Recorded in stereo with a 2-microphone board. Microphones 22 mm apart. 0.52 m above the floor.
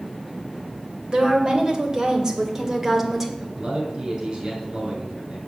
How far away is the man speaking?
About 5.5 m.